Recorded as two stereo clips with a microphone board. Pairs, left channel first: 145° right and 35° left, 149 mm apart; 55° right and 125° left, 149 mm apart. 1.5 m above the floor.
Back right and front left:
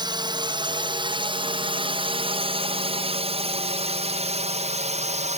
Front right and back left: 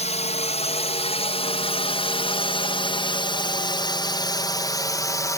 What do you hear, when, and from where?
0.0 s a drone: 20° right; by 5.4 s 10° left